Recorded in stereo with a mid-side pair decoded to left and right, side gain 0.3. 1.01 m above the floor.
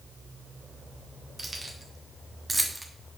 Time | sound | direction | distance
1.4 | keys jangling | 35° right | 2 m